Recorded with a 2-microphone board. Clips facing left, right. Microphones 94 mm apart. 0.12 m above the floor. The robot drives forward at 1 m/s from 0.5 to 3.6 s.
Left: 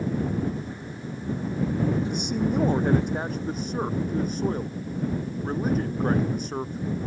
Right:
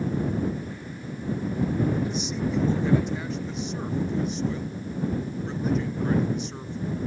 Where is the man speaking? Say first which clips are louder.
Left 2 dB; 55° left (ahead or behind); by 7.1 s 45° left (ahead or behind).